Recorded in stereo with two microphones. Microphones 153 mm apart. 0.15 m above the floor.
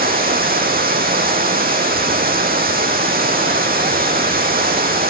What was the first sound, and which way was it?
Running water, 90° right.